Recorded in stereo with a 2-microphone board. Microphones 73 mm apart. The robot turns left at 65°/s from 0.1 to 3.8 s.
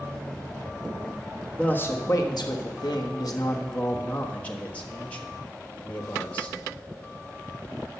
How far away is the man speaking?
About 1.4 m.